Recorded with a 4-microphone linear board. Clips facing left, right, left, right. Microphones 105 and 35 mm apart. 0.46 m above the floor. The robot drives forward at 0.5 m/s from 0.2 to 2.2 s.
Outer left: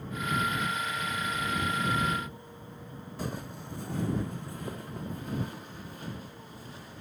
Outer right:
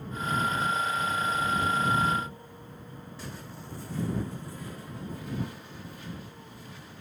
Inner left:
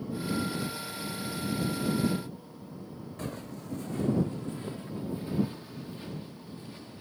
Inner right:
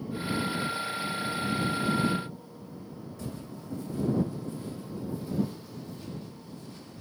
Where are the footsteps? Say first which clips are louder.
Outer left 7 dB, inner left 2 dB; 55° left (ahead or behind), 0.8 m; by 7.0 s 40° left (ahead or behind), 3 m.